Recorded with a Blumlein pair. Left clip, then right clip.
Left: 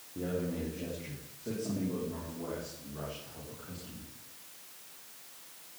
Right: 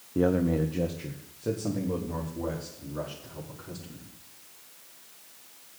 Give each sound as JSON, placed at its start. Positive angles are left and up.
{"t": 0.1, "sound": "a man speaking", "azimuth_deg": -35, "distance_m": 1.2}